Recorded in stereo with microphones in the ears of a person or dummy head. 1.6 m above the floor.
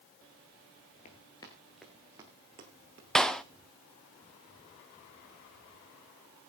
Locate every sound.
1.1 s running footsteps: 25° left (ahead or behind), 1.7 m; by 3.0 s 35° right (ahead or behind), 2.5 m
3.1 s a clap: 5° left (ahead or behind), 0.7 m